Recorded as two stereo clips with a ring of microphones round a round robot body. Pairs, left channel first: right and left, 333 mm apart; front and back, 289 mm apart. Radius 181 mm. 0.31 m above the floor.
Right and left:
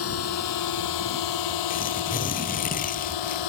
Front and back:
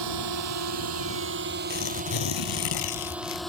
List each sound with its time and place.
0.0 s a drone: 140° right; by 3.5 s 90° right
1.7 s tearing paper: 20° right